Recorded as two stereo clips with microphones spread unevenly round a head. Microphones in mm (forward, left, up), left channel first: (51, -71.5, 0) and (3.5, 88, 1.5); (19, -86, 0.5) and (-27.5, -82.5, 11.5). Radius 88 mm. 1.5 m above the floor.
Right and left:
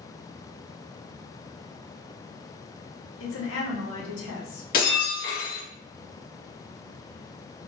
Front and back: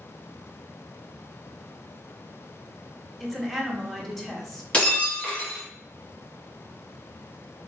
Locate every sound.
3.2 s a woman speaking: 90° right, 1.1 m
4.7 s breaking glass: 75° right, 1.3 m